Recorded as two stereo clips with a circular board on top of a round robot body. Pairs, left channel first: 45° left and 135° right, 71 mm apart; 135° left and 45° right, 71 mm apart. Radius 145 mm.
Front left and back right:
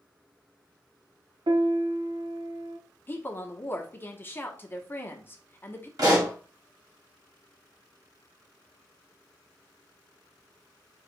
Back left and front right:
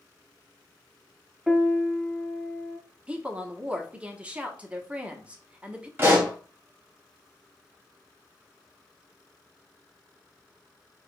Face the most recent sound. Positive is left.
turn(degrees=-105)